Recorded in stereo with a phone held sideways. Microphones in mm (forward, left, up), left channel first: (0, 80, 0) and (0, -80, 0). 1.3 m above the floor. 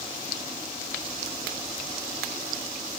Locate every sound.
Only background noise.